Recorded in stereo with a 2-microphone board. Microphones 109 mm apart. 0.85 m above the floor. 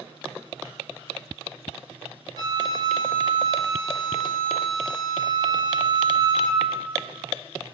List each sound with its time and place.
2.4 s a flute: 45° right (ahead or behind), 1.6 m